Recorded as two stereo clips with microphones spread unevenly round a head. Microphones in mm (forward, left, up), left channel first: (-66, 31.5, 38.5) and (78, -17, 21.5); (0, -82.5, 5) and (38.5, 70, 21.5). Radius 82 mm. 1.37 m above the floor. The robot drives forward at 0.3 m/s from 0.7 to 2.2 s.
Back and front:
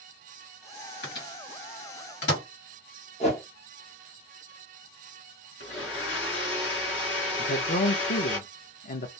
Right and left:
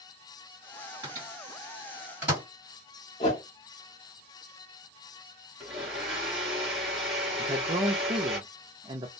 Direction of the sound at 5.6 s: 165° left.